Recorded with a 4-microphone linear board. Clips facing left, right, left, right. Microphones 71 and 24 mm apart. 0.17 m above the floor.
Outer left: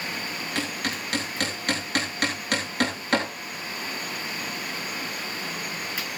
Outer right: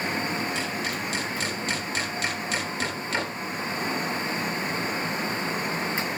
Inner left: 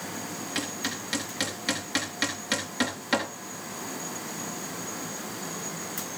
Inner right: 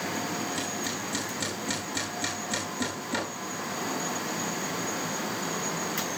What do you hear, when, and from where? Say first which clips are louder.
0.6 s hammering: outer right 1 dB, even; 60° left (ahead or behind), 8 m